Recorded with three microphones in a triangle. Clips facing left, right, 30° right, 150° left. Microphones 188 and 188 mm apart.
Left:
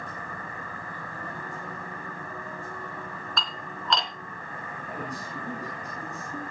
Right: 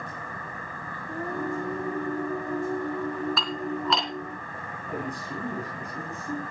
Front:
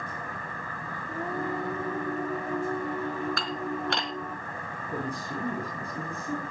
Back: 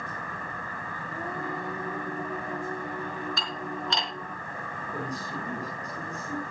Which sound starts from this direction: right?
Singing, at 1.1 s.